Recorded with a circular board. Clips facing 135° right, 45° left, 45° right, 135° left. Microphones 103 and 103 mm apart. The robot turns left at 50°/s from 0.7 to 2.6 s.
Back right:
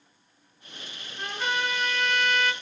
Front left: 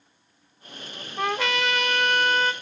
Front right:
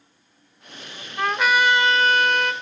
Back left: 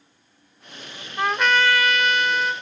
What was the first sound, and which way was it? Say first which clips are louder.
A trumpet: front left 4 dB, even; 55° left.